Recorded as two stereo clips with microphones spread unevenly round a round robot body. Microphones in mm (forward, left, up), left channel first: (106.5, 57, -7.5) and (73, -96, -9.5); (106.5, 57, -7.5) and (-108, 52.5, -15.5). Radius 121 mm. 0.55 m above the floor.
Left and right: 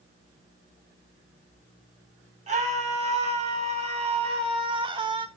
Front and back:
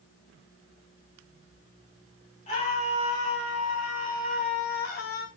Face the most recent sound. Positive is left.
turn(degrees=-45)